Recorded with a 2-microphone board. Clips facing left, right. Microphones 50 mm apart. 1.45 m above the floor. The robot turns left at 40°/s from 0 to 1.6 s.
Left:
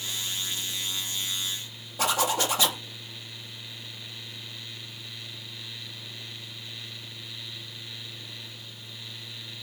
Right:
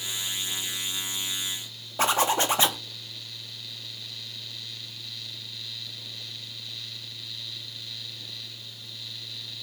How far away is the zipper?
About 0.6 m.